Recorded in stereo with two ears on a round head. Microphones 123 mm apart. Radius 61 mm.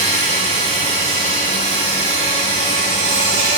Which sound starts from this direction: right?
An insect, at 0.0 s.